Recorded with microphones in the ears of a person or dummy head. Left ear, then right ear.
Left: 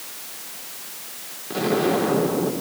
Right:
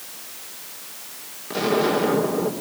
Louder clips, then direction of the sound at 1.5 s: Right 1 dB; 25° right (ahead or behind).